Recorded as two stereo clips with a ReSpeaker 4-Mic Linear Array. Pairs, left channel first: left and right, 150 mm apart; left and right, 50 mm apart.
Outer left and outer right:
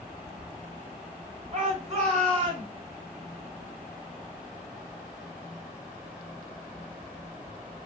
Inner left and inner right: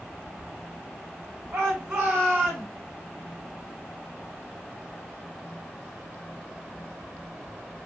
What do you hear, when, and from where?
1.5 s a shout: 45° right (ahead or behind), 2.5 m; by 2.7 s 25° right (ahead or behind), 2.0 m